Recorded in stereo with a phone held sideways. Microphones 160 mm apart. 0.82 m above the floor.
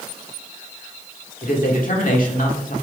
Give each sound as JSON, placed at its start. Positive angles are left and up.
{"t": 1.4, "sound": "a man speaking", "side_deg": 60, "distance_m": 2.0}